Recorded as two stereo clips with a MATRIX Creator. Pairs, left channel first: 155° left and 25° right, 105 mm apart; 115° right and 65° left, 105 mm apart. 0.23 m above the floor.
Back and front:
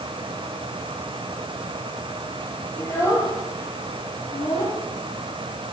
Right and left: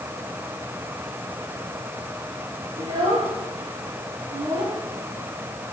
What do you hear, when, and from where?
2.8 s a child speaking: 95° left, 3 m; by 4.8 s 110° left, 4.5 m